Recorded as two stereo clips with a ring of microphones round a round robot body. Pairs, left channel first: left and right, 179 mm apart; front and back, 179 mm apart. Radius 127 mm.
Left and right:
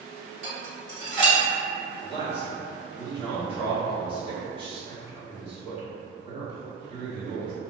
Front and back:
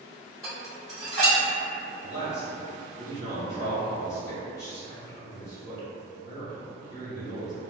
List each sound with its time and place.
0.4 s dishes clattering: 90° right, 1.4 m
2.0 s a man speaking: 40° right, 1.4 m